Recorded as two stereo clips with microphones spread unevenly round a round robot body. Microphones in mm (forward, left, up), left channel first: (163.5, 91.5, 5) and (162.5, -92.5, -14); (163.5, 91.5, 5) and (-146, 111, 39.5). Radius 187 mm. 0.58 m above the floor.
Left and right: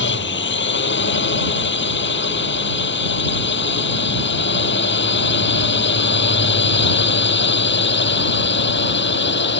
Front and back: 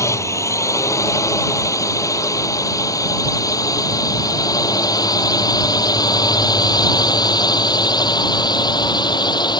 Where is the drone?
75° left.